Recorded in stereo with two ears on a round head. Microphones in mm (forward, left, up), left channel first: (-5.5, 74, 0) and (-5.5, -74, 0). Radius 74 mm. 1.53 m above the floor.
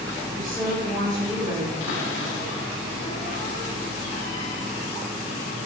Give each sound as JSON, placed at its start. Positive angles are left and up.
{"t": 0.3, "sound": "a woman speaking", "side_deg": -25, "distance_m": 5.5}
{"t": 1.8, "sound": "a cupboard door", "side_deg": 80, "distance_m": 2.5}